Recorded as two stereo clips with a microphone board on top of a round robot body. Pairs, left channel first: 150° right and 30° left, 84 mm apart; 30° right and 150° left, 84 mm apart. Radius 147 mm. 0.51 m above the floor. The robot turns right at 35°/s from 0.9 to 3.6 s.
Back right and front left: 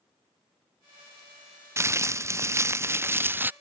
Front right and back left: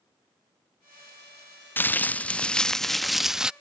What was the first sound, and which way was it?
Crumpling, 15° left.